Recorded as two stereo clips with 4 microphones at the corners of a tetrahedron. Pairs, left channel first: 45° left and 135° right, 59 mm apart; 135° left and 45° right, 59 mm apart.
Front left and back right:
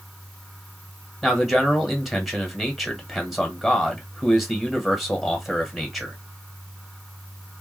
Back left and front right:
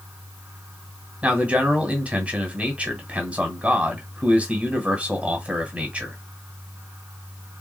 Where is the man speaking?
50° right, 1.5 m.